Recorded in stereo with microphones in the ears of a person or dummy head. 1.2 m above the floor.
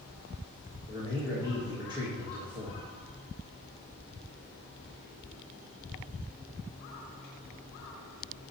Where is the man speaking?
20° right (ahead or behind), 1.4 m.